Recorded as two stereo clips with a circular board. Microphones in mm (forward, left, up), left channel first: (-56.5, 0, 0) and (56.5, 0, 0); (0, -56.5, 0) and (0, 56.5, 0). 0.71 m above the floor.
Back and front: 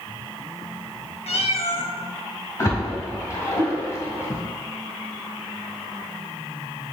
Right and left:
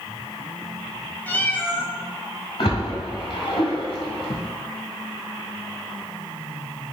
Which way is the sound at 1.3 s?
165° right.